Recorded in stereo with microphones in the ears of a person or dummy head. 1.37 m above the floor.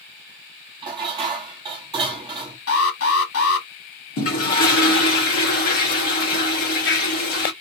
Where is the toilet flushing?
35° left (ahead or behind), 0.6 m.